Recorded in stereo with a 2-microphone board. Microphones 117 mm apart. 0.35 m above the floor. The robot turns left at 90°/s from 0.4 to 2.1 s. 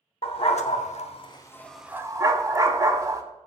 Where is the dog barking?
55° left (ahead or behind), 0.6 m; by 3.2 s 30° right (ahead or behind), 0.6 m.